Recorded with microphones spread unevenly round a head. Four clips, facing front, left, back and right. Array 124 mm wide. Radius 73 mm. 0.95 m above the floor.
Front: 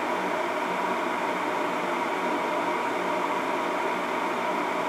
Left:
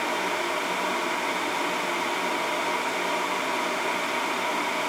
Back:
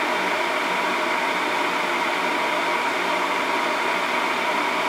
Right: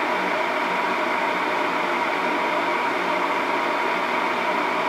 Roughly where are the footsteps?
I don't hear footsteps.